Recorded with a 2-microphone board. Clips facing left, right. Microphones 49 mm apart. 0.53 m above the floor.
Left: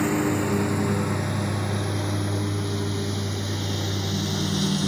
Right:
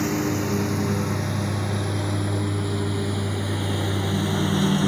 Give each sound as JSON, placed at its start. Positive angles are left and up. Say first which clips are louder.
{"t": 0.0, "sound": "a lawn mower", "louder": "left 1 dB", "side_deg": 10}